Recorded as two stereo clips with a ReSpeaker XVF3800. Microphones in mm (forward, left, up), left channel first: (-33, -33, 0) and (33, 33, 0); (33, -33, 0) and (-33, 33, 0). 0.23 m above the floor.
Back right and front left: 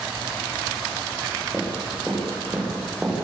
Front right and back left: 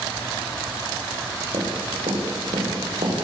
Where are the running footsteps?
120° left, 10 m; by 3.2 s 135° left, 10.5 m.